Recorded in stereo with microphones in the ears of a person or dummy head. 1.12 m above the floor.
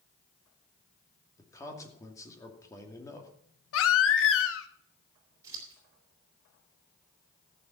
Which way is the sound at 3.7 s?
80° left.